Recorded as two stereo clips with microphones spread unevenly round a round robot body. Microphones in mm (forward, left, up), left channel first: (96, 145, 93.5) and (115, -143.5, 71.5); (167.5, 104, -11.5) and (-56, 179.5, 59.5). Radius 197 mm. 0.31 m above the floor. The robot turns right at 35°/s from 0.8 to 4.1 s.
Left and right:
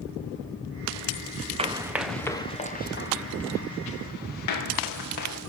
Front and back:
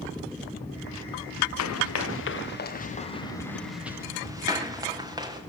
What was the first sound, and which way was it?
Running footsteps, 20° right.